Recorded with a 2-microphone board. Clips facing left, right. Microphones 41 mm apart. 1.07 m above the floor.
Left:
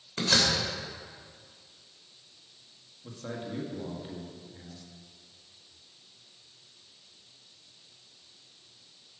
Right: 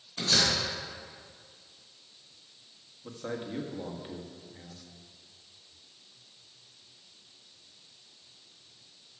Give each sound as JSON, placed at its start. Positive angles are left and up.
{"t": 0.2, "sound": "a door slam", "side_deg": 75, "distance_m": 2.5}
{"t": 3.0, "sound": "a man speaking", "side_deg": -15, "distance_m": 1.5}